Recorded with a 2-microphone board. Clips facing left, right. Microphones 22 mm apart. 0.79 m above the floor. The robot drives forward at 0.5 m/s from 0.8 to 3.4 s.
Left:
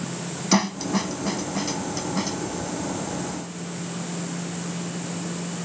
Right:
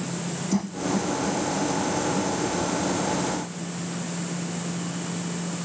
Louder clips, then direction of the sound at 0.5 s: Left 5 dB; 70° left (ahead or behind).